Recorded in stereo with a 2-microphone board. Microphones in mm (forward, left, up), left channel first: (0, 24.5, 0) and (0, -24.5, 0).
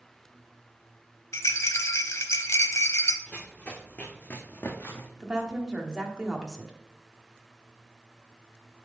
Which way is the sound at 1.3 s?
85° left.